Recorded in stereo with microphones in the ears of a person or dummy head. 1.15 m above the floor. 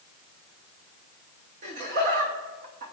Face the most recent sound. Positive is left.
turn(degrees=-45)  # may be behind; listen again after turning